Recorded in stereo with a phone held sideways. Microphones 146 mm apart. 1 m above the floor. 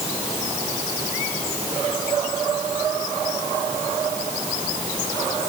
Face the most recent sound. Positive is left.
No sound to turn to.